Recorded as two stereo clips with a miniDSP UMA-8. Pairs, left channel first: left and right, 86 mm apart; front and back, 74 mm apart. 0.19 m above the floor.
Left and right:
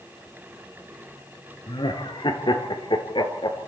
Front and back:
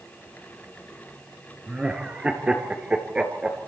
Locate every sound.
1.7 s laughter: 105° left, 3 m